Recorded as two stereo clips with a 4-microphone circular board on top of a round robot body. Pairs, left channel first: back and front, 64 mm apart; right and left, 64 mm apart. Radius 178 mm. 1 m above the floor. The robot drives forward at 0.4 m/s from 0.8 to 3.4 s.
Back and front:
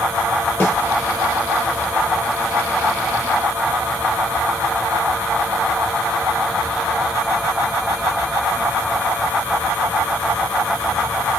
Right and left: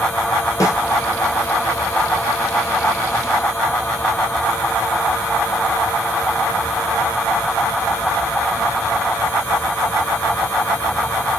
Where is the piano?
I don't hear a piano.